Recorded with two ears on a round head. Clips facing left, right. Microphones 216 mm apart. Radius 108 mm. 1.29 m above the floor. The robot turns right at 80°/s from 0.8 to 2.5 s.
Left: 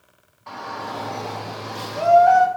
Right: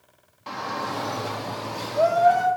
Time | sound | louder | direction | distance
0.5 | a shout | right 2 dB | 50° right | 1.4 m